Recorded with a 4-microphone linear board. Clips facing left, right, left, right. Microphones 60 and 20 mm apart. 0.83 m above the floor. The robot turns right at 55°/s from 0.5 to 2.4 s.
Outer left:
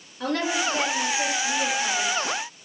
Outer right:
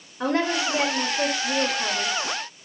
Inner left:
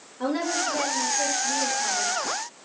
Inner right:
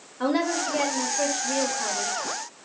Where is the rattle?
I don't hear a rattle.